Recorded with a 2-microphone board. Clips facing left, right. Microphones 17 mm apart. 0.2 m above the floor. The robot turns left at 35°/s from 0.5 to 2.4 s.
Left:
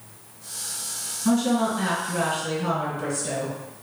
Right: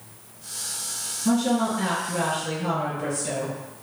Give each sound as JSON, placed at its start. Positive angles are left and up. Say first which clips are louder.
{"t": 1.2, "sound": "a woman speaking", "louder": "left 1 dB", "azimuth_deg": 95, "distance_m": 2.0}